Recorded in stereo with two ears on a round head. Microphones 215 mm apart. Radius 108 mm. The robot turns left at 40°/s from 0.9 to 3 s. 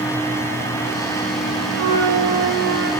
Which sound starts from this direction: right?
A flute, at 1.7 s.